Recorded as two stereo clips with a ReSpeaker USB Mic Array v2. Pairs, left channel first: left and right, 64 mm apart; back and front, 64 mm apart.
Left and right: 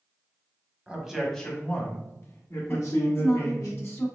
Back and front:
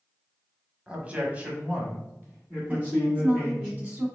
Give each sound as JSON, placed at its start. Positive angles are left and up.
{"t": 0.9, "sound": "a man speaking", "azimuth_deg": -40, "distance_m": 1.0}
{"t": 2.7, "sound": "a woman speaking", "azimuth_deg": 55, "distance_m": 1.8}